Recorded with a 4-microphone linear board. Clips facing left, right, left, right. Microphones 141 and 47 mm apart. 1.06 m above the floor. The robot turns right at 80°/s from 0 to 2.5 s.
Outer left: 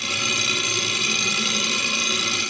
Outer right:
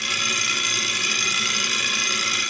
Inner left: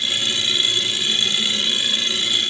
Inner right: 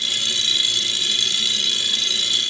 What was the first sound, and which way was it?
Only background noise.